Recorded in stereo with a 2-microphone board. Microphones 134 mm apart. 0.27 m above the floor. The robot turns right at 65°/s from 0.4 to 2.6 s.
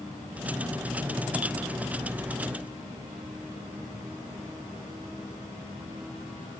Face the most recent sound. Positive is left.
No sound to turn to.